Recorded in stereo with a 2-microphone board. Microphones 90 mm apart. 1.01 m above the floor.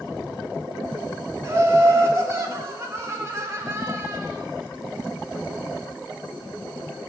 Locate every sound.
1.4 s laughter: 35° right (ahead or behind), 2.5 m